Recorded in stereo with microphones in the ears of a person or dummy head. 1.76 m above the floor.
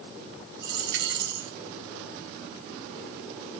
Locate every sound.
0.6 s a dropped coin: 65° right (ahead or behind), 3.5 m